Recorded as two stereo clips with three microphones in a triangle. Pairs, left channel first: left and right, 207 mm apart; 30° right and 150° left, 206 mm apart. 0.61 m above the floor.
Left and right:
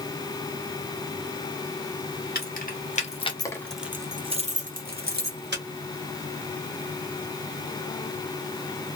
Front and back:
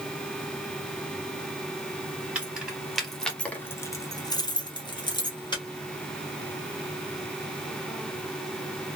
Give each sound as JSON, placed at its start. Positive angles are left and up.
{"t": 2.4, "sound": "keys jangling", "azimuth_deg": 65, "distance_m": 1.0}